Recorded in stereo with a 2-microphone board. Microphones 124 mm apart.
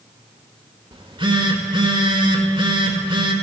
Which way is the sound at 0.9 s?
40° right (ahead or behind).